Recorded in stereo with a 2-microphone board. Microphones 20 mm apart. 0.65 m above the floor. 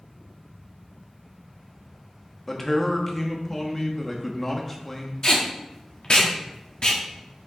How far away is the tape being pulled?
About 1.5 m.